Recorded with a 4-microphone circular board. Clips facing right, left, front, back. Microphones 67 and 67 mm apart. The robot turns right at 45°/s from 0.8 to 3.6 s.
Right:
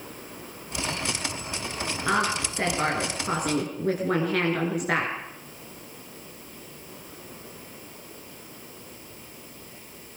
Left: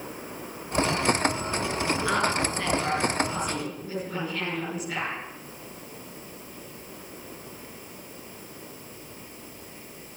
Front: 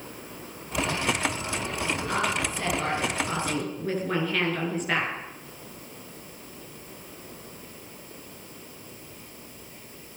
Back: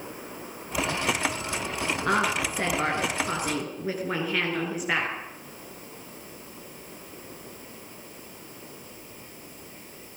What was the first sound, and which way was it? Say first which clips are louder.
A woman speaking: right 3 dB, back 5 dB; 170° right.